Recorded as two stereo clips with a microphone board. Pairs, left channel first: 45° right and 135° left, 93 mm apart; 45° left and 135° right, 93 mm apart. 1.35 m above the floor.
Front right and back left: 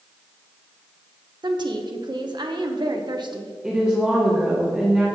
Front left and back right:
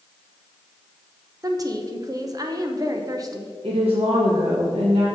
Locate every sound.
1.4 s a woman speaking: 175° left, 0.9 m
3.6 s a woman speaking: 145° right, 1.6 m